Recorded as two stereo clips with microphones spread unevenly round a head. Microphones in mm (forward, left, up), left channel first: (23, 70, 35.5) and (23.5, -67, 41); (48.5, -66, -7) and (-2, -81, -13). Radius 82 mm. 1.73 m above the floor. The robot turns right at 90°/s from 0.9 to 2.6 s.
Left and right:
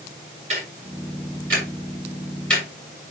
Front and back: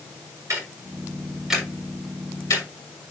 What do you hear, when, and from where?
0.5 s ticking: 135° right, 6 m; by 2.7 s 20° left, 6 m